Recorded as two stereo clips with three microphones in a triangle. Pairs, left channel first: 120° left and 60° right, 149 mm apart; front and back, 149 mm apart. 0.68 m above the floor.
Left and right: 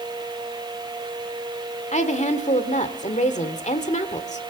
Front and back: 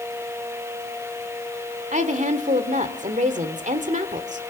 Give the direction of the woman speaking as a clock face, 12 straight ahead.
7 o'clock.